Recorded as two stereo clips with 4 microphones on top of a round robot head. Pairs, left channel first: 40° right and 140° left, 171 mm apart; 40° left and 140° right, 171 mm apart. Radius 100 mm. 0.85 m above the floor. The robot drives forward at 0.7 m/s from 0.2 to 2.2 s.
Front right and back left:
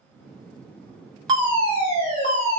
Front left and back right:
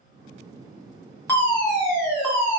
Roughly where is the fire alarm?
Left.